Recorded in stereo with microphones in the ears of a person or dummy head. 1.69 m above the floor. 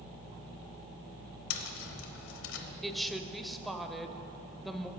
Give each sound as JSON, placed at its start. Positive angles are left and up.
{"t": 1.5, "sound": "tapping", "side_deg": 85, "distance_m": 0.9}
{"t": 2.8, "sound": "a woman speaking", "side_deg": 0, "distance_m": 0.7}